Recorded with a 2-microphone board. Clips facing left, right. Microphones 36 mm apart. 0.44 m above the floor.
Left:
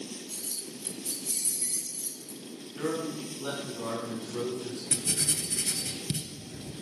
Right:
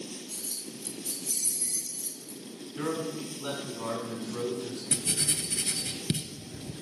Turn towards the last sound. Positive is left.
turn(degrees=-35)  # may be behind; listen again after turning